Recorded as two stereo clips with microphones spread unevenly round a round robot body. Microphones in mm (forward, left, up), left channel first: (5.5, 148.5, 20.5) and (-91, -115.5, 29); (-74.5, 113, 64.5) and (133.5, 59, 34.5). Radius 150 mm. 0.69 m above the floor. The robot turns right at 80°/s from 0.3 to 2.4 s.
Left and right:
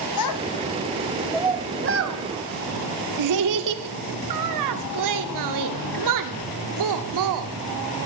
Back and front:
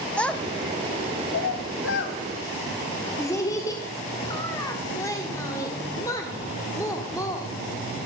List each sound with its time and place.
0.2 s a child speaking: 80° left, 1.4 m; by 7.5 s 115° right, 1.4 m